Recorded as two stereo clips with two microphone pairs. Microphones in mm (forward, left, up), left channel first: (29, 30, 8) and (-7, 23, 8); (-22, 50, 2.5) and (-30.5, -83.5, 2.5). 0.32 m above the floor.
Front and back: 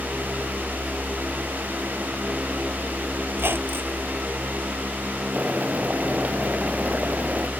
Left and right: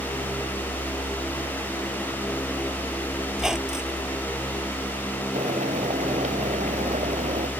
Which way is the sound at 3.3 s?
Straight behind.